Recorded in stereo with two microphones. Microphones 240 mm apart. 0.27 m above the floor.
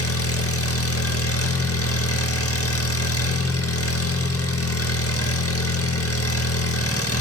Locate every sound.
0.0 s an engine running: 70° left (ahead or behind), 2.5 m